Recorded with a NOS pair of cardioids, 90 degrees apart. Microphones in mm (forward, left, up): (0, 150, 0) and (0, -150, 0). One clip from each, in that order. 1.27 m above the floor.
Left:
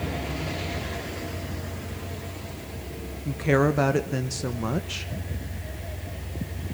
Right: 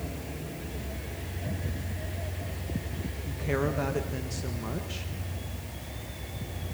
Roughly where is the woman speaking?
Ahead left.